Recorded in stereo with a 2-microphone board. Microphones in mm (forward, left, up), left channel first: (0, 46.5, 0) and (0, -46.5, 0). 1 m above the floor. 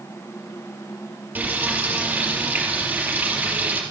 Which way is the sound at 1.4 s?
20° right (ahead or behind).